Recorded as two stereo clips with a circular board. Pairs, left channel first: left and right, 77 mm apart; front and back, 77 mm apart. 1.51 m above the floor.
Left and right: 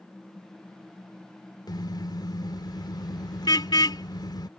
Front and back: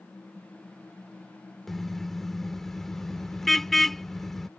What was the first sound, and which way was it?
A car horn, 85° left.